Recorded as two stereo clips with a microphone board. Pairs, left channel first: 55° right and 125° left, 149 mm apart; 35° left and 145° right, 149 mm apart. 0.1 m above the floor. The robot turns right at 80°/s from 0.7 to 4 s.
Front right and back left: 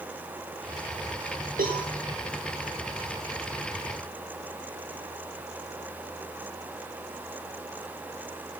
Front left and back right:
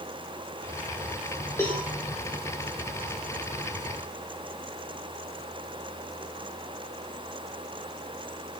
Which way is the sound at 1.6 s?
105° left.